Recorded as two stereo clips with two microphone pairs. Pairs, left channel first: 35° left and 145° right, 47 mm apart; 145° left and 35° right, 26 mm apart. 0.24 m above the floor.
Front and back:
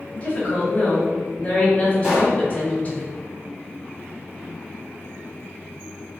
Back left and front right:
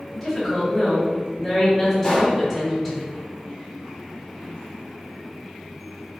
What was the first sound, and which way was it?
A woman speaking, 55° left.